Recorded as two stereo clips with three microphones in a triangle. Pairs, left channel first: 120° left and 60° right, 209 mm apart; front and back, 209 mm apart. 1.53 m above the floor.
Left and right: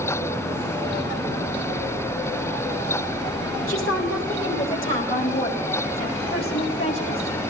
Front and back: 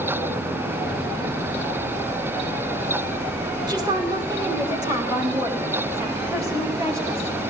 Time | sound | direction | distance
3.7 | a woman speaking | 110° left | 2.5 m